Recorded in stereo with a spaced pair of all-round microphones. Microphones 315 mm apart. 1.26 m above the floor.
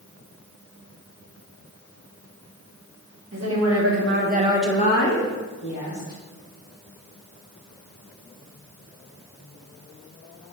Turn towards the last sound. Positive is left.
turn(degrees=70)  # may be behind; listen again after turning